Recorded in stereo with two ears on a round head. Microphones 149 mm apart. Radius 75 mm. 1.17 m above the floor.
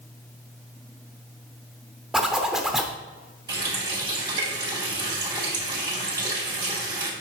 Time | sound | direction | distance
2.1 | a zipper | 5° right (ahead or behind) | 0.9 m
3.5 | a running tap | 25° right (ahead or behind) | 2 m